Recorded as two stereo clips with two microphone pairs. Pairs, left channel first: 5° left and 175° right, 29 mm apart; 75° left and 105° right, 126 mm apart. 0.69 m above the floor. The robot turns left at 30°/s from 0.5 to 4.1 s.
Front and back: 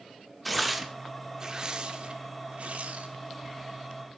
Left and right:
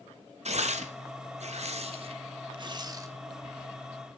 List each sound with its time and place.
0.5 s tearing paper: 90° right, 1.8 m; by 3.1 s 170° right, 1.8 m